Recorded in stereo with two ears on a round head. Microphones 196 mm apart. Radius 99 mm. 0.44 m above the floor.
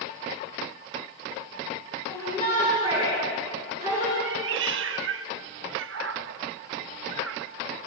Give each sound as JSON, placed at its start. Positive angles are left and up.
{"t": 2.1, "sound": "a shout", "side_deg": 25, "distance_m": 5.5}
{"t": 4.2, "sound": "a cat meowing", "side_deg": -65, "distance_m": 0.7}